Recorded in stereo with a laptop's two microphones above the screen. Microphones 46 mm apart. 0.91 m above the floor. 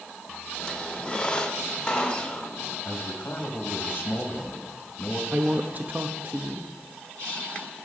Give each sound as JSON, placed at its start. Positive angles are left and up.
{"t": 0.6, "sound": "a squeak", "side_deg": 20, "distance_m": 1.6}
{"t": 2.9, "sound": "a man speaking", "side_deg": 45, "distance_m": 1.3}
{"t": 5.3, "sound": "a woman speaking", "side_deg": -40, "distance_m": 0.8}